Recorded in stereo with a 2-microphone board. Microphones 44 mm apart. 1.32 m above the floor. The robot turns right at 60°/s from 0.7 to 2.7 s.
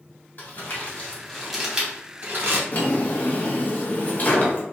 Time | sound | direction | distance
0.4 | crumpling | 45° left (ahead or behind) | 1.1 m
2.7 | a drawer | 40° left (ahead or behind) | 0.6 m